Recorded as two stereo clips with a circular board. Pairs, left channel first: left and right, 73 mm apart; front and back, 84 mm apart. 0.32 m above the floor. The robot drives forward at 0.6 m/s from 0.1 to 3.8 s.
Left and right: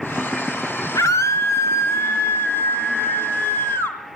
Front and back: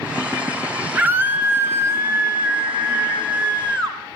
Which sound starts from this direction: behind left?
A scream, at 0.9 s.